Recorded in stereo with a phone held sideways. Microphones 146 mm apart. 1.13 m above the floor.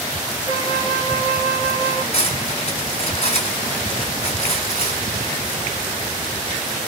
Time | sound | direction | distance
0.5 | a flute | 75° left (ahead or behind) | 1.3 m
2.1 | cutlery clinking | 50° left (ahead or behind) | 2 m